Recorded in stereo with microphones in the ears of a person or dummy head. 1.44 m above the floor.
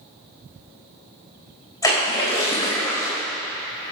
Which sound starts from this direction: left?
A splash, at 1.8 s.